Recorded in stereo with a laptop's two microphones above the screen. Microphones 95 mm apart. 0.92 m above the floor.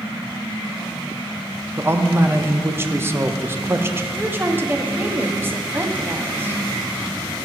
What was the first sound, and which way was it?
A man speaking, 25° right (ahead or behind).